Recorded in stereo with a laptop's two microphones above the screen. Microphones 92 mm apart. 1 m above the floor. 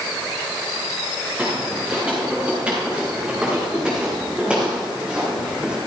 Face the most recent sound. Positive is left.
turn(degrees=-10)  # may be behind; listen again after turning